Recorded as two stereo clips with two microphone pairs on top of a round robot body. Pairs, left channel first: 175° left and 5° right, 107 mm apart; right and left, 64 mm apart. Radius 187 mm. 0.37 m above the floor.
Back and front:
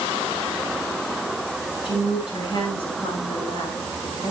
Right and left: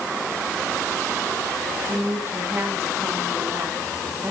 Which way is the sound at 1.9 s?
135° left.